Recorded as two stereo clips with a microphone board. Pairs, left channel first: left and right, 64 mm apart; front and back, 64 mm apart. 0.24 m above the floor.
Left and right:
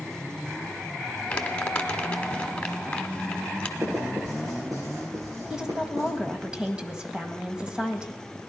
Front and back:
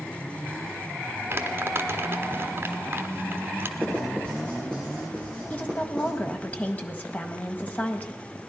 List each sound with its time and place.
1.3 s crumpling: 155° left, 1.1 m
3.8 s writing: 70° right, 7 m
5.5 s a woman speaking: 30° right, 1.3 m